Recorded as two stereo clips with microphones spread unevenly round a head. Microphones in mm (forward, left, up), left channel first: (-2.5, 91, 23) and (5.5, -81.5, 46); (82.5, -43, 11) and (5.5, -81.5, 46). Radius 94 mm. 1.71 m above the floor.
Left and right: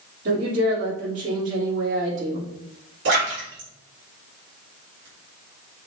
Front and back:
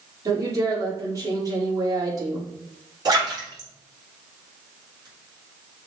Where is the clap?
I don't hear a clap.